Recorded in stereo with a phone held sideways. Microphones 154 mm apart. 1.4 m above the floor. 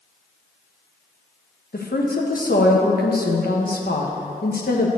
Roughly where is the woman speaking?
Left.